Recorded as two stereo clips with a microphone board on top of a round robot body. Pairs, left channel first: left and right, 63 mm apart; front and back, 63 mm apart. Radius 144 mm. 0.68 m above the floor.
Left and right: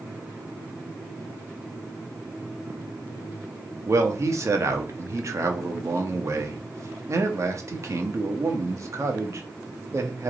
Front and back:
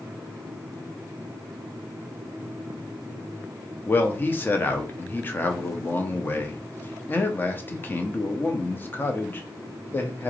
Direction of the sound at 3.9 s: 55° right.